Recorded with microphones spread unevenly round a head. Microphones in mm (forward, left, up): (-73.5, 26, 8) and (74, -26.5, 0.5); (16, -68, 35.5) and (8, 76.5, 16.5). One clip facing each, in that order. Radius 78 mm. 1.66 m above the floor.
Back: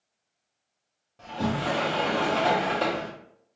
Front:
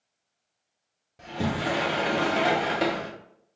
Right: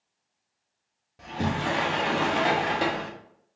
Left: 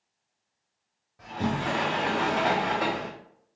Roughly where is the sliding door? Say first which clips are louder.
Even, even; right.